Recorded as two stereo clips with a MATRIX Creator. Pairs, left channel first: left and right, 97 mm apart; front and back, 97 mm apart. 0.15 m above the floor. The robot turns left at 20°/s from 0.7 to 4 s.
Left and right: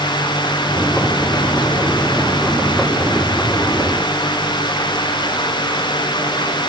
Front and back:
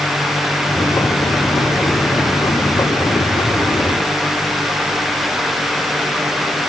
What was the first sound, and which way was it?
Only background noise.